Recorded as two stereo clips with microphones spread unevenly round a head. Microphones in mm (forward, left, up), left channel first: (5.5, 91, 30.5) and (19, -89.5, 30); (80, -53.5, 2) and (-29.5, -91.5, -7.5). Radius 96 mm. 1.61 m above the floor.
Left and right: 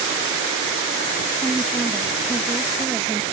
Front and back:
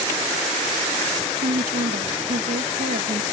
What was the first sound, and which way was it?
A woman speaking, straight behind.